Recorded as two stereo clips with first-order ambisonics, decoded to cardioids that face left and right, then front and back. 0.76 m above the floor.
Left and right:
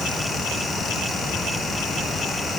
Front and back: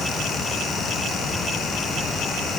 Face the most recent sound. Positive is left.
No sound to turn to.